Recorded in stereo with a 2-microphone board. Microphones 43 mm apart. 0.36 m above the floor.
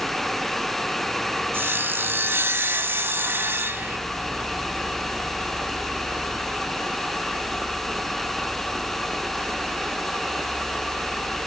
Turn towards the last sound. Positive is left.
turn(degrees=-65)  # may be behind; listen again after turning